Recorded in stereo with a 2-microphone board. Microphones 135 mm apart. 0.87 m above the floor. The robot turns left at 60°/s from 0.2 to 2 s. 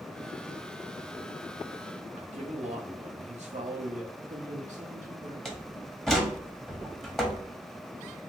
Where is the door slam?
5° left (ahead or behind), 1.0 m.